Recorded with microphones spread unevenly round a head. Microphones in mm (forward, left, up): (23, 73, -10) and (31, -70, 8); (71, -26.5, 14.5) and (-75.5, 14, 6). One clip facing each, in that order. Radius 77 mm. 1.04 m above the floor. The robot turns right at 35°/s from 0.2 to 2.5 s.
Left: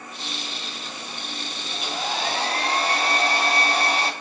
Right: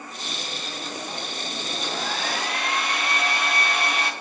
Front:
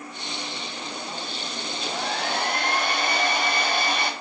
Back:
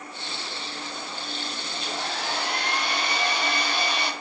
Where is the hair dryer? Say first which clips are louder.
Left 2 dB, front 3 dB; 5° left, 0.9 m; by 4.1 s 35° left, 0.9 m.